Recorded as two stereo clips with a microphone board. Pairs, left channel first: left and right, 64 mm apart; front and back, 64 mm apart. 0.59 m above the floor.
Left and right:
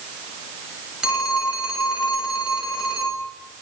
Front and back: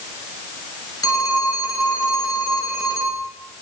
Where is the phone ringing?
10° right, 1.8 m.